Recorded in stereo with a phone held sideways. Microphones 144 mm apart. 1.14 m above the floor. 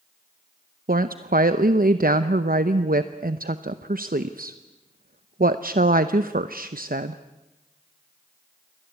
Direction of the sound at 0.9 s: 85° right.